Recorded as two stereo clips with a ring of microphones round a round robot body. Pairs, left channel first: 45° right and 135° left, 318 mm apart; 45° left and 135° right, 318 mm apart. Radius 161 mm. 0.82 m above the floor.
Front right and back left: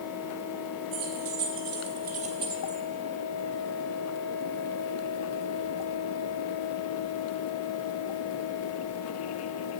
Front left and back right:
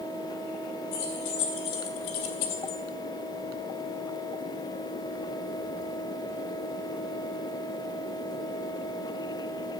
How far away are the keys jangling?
About 2.5 m.